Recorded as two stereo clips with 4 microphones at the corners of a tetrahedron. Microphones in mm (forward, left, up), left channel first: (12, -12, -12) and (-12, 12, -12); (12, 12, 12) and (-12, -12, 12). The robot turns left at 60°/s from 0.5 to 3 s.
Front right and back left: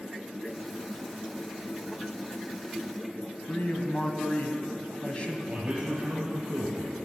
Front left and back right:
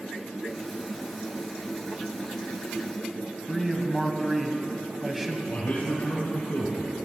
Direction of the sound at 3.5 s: 50° right.